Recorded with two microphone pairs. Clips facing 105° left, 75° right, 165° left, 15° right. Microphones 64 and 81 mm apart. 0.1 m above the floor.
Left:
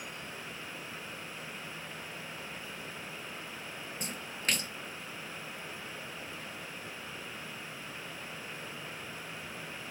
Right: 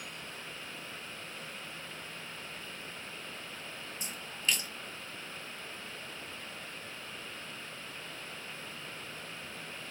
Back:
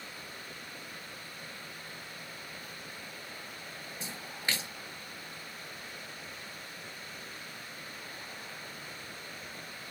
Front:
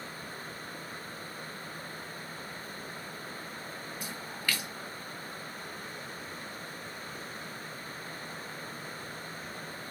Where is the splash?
110° left, 0.5 m.